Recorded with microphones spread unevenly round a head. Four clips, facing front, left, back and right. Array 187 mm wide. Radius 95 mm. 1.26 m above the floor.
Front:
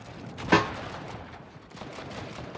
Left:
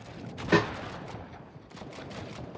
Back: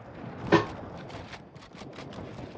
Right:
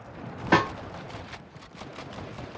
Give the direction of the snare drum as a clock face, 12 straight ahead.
2 o'clock.